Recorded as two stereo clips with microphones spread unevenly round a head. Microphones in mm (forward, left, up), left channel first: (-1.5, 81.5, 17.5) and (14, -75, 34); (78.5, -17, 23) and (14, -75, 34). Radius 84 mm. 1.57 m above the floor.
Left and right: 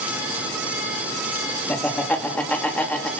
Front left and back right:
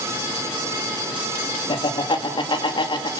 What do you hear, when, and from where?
1.7 s laughter: 15° left, 3 m